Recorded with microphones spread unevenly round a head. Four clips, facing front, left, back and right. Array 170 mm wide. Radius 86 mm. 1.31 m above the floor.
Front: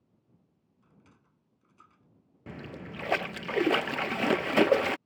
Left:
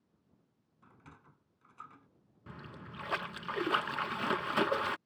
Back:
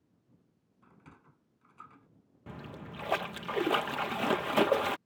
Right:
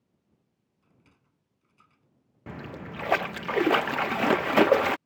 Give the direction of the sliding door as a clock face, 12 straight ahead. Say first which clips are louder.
Left 8 dB, back 5 dB; 7 o'clock.